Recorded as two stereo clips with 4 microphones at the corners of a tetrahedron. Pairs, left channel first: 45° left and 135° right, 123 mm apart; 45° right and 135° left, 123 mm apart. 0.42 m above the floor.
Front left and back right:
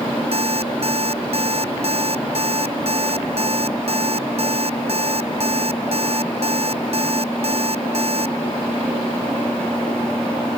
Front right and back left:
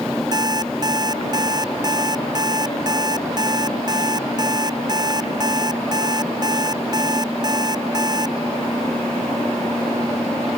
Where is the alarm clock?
170° right.